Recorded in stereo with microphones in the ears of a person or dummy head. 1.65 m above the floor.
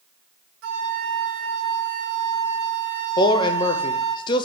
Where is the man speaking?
25° left (ahead or behind), 0.8 m.